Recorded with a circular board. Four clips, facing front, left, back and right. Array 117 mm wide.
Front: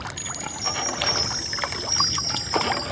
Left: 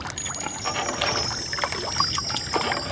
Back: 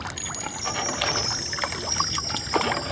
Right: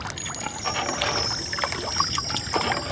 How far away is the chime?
About 2.5 m.